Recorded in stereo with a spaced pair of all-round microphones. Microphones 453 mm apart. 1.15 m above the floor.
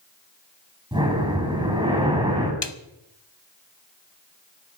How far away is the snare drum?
About 0.9 m.